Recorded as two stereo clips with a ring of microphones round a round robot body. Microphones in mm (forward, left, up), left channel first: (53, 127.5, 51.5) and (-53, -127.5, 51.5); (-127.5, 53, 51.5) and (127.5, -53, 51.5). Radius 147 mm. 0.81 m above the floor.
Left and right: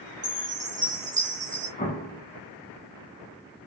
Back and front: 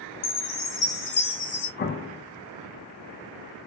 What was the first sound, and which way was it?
A chime, 170° left.